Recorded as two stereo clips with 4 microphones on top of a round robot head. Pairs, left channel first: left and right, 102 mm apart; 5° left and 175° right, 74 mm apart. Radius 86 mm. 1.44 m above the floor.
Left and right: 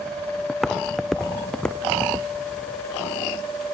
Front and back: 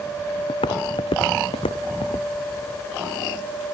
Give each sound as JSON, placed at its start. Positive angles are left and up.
{"t": 0.5, "sound": "footsteps", "azimuth_deg": -5}